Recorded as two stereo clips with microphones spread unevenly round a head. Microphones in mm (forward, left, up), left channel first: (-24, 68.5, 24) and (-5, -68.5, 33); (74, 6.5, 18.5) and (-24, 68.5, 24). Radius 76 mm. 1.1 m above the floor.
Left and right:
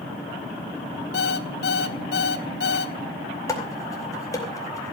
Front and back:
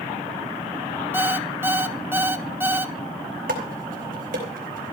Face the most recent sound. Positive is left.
turn(degrees=165)